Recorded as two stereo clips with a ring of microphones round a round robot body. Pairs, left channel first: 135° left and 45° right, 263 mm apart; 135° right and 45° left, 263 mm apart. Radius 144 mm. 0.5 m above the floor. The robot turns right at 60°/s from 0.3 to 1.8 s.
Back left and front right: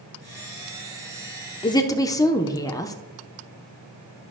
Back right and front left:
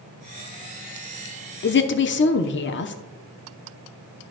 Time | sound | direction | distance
1.6 | a woman speaking | 165° right | 0.9 m